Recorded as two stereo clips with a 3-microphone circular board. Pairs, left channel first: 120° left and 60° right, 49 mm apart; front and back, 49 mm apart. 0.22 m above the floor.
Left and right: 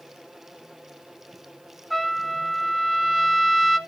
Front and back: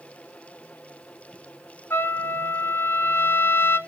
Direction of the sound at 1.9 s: 30° left.